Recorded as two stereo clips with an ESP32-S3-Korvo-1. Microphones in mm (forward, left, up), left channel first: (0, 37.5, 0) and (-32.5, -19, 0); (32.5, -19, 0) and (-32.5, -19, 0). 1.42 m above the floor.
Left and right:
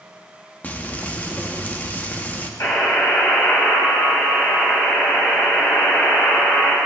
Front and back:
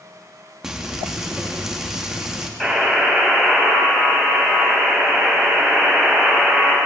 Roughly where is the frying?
Left.